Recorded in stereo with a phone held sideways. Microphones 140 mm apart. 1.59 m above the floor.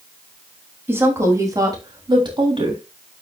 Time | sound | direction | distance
0.9 | a woman speaking | 15° right (ahead or behind) | 3 m